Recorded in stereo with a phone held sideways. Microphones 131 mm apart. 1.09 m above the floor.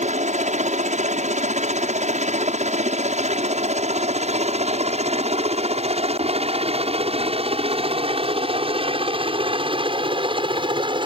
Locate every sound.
0.0 s a helicopter: 65° right (ahead or behind); by 11.1 s 40° right (ahead or behind)